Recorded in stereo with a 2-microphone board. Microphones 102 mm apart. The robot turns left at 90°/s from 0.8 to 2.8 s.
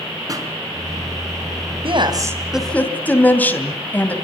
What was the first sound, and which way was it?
A pop, 35° right (ahead or behind).